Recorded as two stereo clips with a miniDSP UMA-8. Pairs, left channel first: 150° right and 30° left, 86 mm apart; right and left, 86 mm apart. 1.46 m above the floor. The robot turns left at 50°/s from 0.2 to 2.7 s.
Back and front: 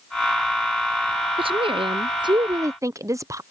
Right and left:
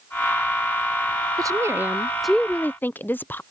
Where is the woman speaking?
45° left; by 3.4 s 20° right.